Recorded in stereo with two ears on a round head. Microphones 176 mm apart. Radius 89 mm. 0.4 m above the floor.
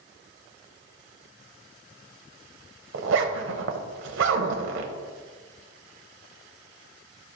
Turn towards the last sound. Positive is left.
turn(degrees=-70)  # may be behind; listen again after turning